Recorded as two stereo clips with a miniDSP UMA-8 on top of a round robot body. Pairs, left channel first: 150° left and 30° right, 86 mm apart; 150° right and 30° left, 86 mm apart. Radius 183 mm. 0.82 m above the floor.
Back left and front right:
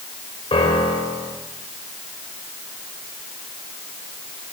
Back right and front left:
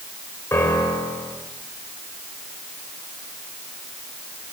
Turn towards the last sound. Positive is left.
turn(degrees=150)